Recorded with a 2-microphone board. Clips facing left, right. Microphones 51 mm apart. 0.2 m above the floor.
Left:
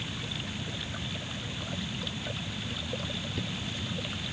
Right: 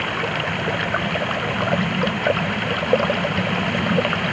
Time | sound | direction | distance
0.0 | running water | 60° right (ahead or behind) | ?